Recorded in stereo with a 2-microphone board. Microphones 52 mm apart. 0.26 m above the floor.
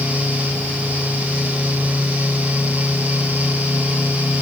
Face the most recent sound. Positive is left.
No sound to turn to.